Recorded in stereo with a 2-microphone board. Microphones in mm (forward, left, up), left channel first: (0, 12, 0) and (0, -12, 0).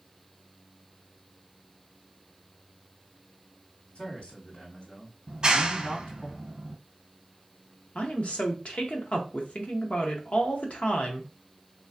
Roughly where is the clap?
Right.